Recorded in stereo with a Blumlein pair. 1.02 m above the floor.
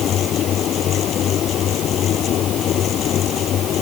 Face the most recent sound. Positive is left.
turn(degrees=30)